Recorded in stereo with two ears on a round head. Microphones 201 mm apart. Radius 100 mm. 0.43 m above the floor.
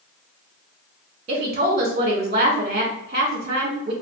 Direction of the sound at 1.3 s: 30° right (ahead or behind).